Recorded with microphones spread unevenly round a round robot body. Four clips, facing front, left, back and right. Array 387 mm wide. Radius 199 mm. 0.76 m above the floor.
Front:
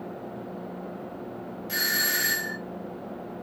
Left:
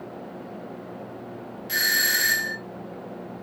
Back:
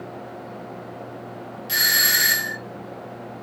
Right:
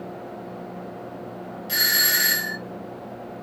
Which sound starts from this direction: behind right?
A doorbell, at 1.7 s.